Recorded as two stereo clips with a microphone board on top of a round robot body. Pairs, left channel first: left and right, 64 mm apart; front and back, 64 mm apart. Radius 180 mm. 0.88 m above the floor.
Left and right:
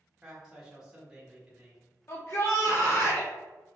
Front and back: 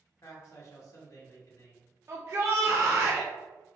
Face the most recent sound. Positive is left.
turn(degrees=135)